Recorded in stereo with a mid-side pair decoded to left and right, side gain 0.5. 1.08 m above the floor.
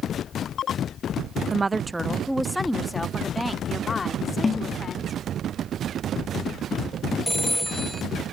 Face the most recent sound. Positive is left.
turn(degrees=5)